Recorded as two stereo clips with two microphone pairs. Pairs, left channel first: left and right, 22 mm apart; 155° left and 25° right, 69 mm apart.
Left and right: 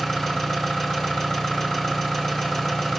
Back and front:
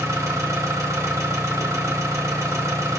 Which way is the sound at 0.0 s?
20° left.